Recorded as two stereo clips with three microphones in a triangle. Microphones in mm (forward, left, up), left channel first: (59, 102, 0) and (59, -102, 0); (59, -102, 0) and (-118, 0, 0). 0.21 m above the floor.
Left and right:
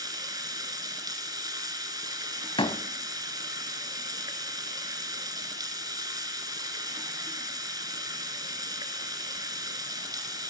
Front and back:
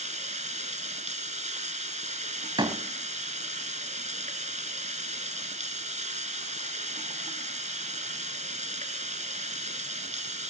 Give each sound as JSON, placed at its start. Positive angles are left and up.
{"t": 0.0, "sound": "running water", "azimuth_deg": -160, "distance_m": 1.6}
{"t": 2.6, "sound": "a door slam", "azimuth_deg": 115, "distance_m": 0.7}